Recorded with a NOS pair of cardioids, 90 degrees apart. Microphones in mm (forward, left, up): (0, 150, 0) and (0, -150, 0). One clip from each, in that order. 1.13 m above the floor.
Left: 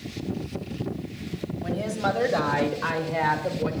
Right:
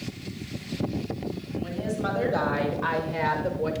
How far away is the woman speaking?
About 1.8 m.